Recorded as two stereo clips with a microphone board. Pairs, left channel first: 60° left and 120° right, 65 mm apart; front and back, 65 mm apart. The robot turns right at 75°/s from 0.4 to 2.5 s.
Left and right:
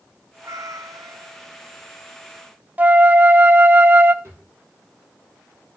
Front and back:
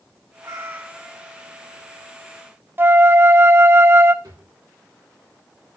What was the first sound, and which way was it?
A cat meowing, 150° right.